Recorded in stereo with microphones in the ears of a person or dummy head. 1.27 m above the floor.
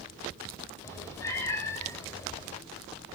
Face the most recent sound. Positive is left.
turn(degrees=15)  # may be behind; listen again after turning